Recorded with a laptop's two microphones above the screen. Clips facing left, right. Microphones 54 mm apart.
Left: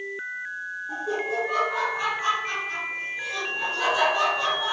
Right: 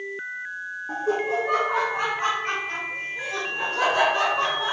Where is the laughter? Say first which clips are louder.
Right 4 dB; 60° right (ahead or behind), 1.6 m; by 4.7 s 45° right (ahead or behind), 4 m.